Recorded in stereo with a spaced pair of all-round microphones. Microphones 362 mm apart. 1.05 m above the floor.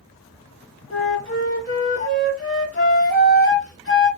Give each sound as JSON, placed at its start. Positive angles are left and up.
{"t": 0.9, "sound": "a flute", "side_deg": 30, "distance_m": 2.0}